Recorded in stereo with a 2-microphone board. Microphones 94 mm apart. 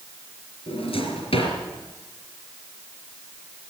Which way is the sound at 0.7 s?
85° left.